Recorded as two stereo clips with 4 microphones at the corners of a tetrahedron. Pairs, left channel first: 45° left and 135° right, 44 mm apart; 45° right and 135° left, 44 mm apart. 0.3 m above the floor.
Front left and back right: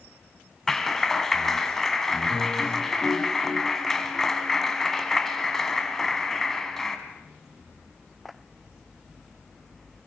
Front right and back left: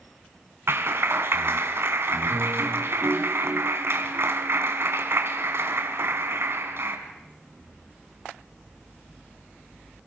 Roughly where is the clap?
Behind left.